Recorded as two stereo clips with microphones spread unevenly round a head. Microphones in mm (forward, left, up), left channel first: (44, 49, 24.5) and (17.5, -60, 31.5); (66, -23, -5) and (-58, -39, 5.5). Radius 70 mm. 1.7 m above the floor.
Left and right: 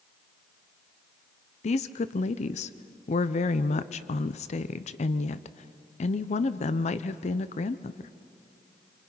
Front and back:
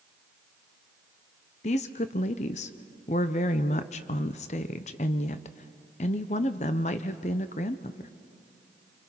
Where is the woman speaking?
50° left, 0.6 m.